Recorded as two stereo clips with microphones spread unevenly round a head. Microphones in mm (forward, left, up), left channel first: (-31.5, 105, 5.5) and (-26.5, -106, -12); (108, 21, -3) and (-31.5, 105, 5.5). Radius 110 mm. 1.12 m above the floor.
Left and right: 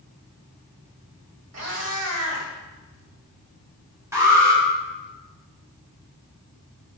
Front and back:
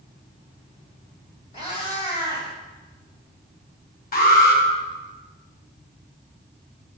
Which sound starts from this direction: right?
A cat meowing, at 1.5 s.